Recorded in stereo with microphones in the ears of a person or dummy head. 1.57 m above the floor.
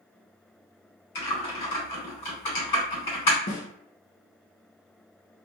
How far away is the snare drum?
About 0.6 m.